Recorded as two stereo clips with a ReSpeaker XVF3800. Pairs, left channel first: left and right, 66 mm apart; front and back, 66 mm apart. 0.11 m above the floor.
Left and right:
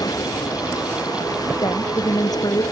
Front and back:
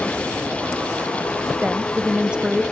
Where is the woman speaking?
105° left.